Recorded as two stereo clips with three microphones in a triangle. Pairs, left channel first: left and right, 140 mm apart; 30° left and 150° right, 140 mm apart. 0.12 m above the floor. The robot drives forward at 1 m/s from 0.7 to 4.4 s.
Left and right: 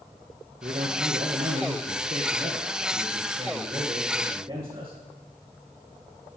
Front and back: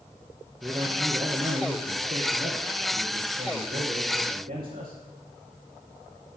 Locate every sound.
0.6 s a man speaking: 80° right, 2 m; by 5.0 s 155° right, 4 m